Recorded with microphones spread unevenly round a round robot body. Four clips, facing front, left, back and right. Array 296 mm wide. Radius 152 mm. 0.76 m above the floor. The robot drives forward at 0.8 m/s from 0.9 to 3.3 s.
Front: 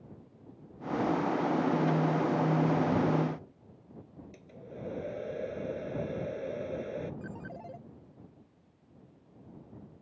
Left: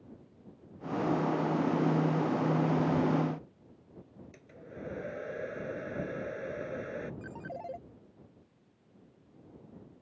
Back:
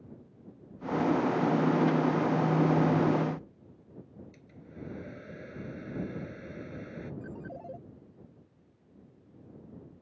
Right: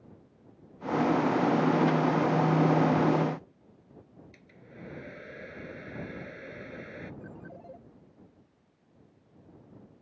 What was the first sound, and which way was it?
A hair dryer, 15° left.